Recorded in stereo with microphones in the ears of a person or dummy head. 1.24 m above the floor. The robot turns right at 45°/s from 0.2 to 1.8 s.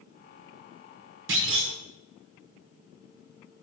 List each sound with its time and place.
1.3 s a clunk: 60° right (ahead or behind), 1.1 m